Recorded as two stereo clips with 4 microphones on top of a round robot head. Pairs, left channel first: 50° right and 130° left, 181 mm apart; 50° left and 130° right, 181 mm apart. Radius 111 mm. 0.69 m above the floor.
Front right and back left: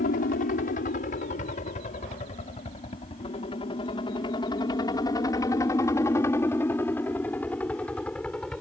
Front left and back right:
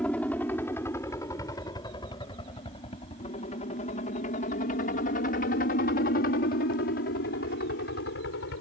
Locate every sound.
0.0 s a helicopter: 35° right; by 8.6 s 40° left